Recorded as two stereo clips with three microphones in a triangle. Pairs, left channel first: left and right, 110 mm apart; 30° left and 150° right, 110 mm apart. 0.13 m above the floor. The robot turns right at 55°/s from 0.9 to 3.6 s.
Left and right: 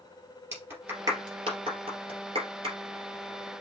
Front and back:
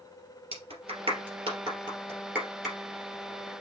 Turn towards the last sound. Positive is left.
turn(degrees=-5)